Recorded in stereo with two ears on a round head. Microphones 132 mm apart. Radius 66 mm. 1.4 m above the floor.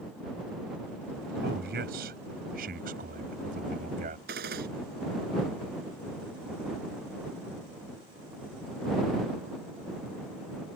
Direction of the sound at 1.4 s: 75° right (ahead or behind).